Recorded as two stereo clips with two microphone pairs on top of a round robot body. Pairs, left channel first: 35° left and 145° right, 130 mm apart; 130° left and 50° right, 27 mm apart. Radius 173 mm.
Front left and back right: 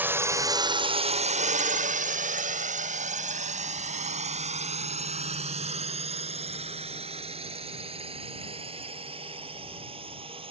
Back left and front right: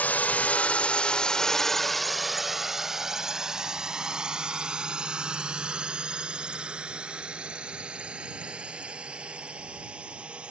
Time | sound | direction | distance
0.0 | a drone | 140° left | ?